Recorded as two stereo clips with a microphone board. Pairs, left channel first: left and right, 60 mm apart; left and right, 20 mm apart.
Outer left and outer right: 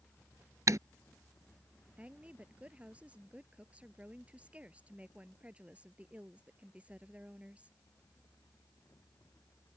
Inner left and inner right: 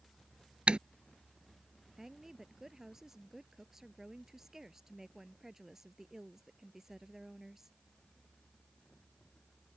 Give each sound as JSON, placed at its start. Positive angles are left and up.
{"t": 0.7, "sound": "typing on a keyboard", "side_deg": -70}
{"t": 2.0, "sound": "a woman speaking", "side_deg": -20}